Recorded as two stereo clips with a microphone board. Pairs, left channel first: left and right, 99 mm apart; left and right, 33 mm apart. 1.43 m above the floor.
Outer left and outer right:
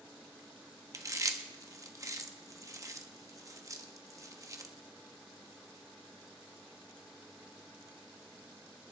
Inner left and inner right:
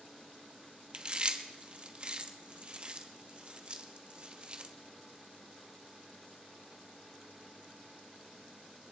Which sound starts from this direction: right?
Chewing, at 0.9 s.